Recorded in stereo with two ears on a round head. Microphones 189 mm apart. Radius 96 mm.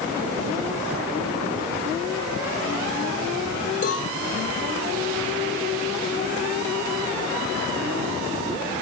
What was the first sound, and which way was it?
A cowbell, 40° left (ahead or behind).